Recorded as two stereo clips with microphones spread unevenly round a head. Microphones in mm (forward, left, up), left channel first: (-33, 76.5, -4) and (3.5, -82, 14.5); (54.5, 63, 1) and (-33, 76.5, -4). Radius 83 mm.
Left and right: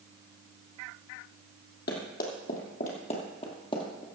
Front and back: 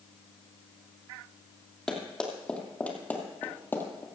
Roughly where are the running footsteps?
Left.